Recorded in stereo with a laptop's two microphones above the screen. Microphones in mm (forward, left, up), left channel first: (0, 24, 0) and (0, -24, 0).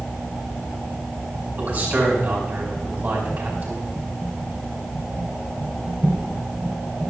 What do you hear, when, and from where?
1.6 s a man speaking: 30° right (ahead or behind), 4.5 m